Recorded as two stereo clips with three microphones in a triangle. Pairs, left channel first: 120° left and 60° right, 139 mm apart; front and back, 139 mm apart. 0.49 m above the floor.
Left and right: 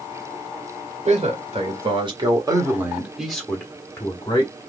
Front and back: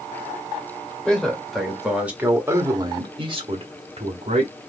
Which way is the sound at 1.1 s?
85° right.